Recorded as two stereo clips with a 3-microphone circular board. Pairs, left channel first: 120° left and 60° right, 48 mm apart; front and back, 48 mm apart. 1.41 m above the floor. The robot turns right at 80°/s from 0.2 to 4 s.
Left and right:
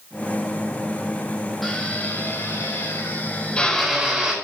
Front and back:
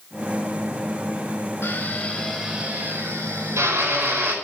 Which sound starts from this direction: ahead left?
A drill, at 1.6 s.